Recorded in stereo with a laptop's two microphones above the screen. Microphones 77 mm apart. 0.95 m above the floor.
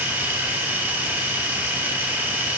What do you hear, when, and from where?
0.0 s a machine running: 30° right (ahead or behind), 1.5 m